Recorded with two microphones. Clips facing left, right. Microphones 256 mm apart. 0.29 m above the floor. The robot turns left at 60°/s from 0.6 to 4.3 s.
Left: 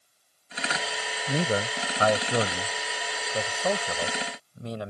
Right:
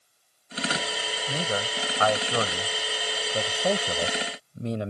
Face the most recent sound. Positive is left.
turn(degrees=-25)  # may be behind; listen again after turning